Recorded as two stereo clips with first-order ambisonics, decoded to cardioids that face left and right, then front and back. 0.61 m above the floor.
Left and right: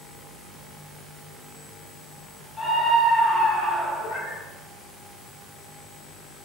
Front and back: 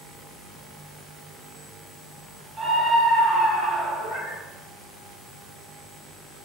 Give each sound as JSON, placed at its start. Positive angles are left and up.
{"t": 2.6, "sound": "a scream", "azimuth_deg": 115, "distance_m": 0.7}
{"t": 4.0, "sound": "a cat meowing", "azimuth_deg": 130, "distance_m": 1.4}